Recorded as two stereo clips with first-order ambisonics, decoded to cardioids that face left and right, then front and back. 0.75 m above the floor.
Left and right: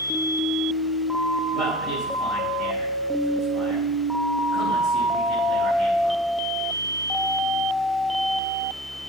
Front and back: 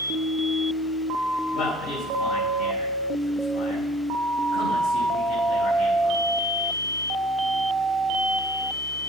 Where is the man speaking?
Straight ahead, 5.5 m.